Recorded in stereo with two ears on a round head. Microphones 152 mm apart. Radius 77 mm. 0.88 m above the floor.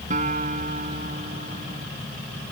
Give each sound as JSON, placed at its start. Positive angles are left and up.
{"t": 0.1, "sound": "a guitar", "side_deg": -50}